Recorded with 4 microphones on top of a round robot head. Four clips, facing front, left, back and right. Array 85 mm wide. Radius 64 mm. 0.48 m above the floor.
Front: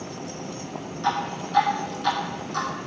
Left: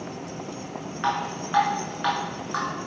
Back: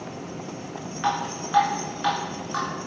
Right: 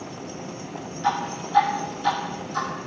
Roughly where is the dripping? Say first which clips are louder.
Right 2 dB, even; behind left.